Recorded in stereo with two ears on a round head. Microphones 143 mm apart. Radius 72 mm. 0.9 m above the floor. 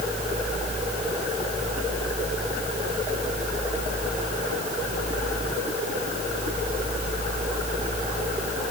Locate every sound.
Only background noise.